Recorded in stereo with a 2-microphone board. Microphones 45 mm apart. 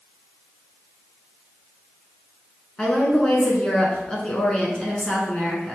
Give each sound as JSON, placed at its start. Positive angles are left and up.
{"t": 2.8, "sound": "a woman speaking", "side_deg": 20, "distance_m": 1.1}